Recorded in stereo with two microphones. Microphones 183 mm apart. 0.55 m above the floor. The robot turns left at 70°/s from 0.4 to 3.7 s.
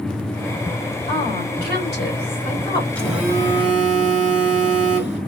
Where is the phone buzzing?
10° left, 2.0 m; by 5.2 s 45° right, 2.0 m.